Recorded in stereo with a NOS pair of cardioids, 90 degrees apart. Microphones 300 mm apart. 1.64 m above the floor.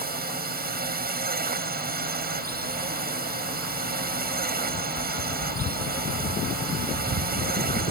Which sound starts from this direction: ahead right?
A drone, at 0.0 s.